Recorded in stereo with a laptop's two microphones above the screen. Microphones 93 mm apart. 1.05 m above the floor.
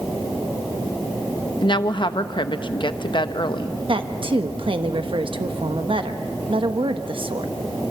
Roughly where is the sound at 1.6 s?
Left.